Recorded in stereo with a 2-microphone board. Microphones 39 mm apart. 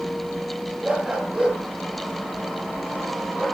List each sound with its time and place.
0.8 s a dog barking: 15° right (ahead or behind), 6.5 m; by 3.5 s centre (ahead or behind), 7 m